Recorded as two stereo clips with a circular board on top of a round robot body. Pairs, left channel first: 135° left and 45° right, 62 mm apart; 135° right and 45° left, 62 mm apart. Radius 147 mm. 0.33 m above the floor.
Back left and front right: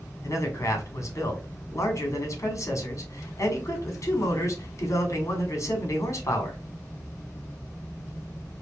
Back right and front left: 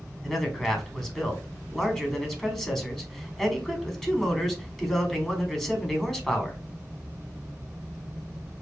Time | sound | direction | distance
0.2 | a man speaking | 145° left | 2 m